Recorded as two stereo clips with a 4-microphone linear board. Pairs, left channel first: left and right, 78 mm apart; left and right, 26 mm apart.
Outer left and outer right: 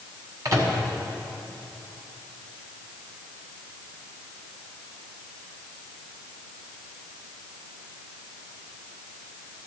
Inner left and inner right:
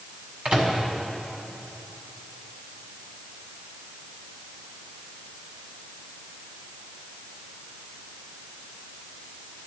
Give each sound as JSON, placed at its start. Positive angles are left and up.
{"t": 0.5, "sound": "a microwave", "side_deg": -45, "distance_m": 1.5}